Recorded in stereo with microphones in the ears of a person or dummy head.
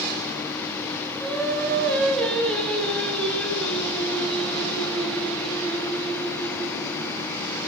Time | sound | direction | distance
1.2 | singing | 10° left (ahead or behind) | 1.4 m